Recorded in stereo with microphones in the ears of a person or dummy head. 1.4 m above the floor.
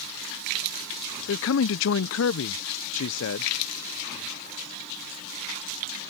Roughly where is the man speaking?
Left.